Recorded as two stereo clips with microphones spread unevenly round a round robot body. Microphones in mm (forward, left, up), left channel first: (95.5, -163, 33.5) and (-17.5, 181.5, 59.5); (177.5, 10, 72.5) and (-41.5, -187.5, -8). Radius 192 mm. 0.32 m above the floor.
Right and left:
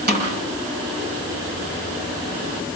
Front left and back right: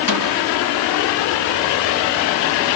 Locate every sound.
0.1 s a snare drum: 45° left, 8 m